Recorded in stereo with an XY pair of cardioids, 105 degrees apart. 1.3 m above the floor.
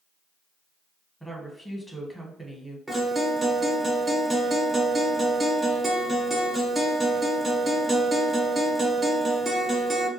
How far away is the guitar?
About 1.0 m.